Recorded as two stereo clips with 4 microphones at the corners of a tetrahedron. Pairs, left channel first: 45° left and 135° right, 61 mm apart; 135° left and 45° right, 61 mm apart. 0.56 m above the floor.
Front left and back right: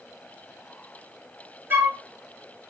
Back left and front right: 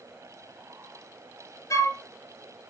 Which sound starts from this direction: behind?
A flute, at 1.7 s.